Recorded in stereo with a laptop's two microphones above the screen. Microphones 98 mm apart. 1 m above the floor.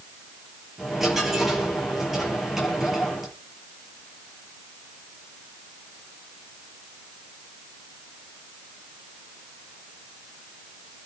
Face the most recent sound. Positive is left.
turn(degrees=-5)  # may be behind; listen again after turning